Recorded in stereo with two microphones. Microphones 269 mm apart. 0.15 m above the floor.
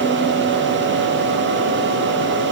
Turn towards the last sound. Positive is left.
No sound to turn to.